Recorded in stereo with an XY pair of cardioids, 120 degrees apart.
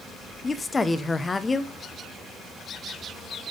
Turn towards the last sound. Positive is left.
turn(degrees=20)